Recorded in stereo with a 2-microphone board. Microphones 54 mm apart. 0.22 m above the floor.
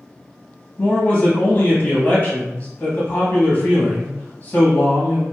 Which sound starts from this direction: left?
A man speaking, at 0.8 s.